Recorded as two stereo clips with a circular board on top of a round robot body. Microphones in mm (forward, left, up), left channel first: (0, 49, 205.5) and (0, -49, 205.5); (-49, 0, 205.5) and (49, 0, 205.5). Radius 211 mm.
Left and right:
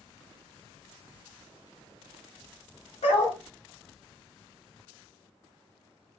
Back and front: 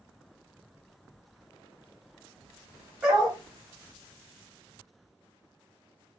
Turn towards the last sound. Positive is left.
turn(degrees=85)